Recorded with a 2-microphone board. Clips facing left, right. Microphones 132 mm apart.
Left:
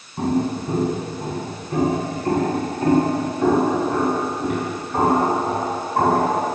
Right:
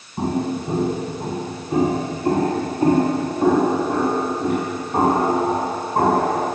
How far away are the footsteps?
About 6 m.